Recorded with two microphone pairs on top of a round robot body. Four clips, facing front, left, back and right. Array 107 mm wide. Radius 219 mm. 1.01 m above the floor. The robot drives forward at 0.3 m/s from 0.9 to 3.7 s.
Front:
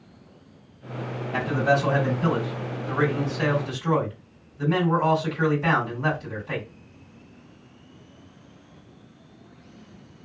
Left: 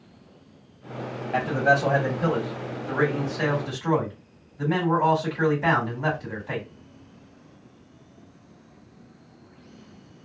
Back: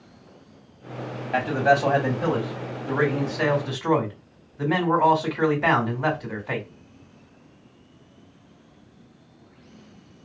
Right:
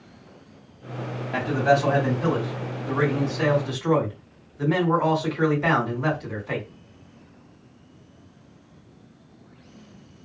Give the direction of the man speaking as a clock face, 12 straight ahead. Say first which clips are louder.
Right 1 dB, back 3 dB; 7 o'clock.